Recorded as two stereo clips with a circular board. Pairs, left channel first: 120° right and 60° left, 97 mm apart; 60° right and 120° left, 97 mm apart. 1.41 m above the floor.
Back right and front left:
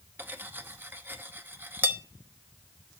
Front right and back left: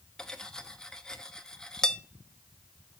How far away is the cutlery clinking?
About 0.8 m.